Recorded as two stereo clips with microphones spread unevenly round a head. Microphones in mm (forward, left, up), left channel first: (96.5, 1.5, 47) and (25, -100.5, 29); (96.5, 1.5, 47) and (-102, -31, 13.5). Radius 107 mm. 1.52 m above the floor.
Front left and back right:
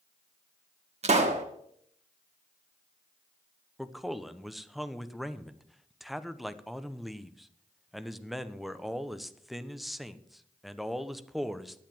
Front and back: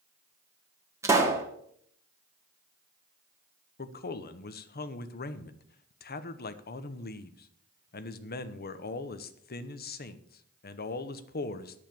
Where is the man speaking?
35° right, 1.0 m.